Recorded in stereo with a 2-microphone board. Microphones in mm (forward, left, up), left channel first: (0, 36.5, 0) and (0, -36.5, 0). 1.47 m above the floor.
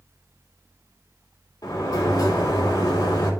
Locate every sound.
1.6 s a sliding door: 70° left (ahead or behind), 2 m